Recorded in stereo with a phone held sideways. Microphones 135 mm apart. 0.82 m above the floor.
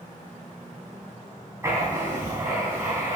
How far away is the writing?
About 3 m.